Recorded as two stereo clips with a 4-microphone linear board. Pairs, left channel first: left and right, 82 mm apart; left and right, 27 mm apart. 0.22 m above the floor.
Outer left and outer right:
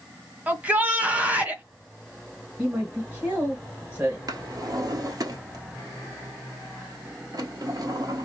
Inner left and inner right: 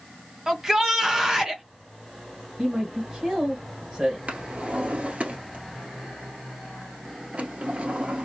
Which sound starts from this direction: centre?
A shout, at 0.5 s.